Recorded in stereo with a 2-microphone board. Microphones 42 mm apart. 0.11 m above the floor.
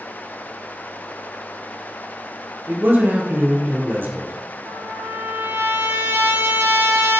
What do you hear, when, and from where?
2.7 s a man speaking: 50° right (ahead or behind), 3.5 m
4.7 s a trumpet: 65° right (ahead or behind), 3.5 m